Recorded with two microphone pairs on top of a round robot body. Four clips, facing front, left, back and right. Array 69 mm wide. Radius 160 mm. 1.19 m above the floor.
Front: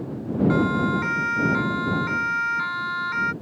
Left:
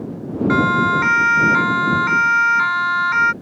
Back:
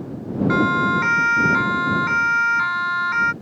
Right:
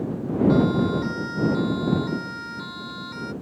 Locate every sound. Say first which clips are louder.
0.5 s a siren: left 7 dB, back 5 dB; 110° left; by 3.3 s 105° left